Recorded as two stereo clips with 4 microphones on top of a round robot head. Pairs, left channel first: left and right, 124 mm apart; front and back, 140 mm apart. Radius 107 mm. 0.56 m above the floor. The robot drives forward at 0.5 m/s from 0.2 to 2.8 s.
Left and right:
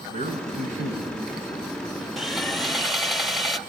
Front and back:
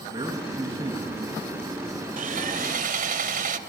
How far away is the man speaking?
About 6.5 m.